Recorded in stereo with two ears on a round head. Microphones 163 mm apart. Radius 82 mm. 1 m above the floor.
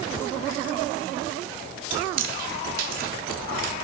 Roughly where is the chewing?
Right.